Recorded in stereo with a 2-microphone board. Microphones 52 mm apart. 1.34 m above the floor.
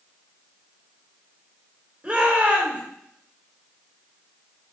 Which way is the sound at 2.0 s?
25° right (ahead or behind).